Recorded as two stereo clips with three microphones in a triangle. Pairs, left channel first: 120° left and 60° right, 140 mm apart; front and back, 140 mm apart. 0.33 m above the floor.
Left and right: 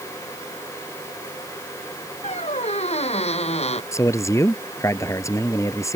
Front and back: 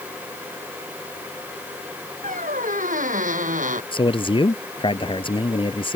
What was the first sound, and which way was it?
A squeak, 160° left.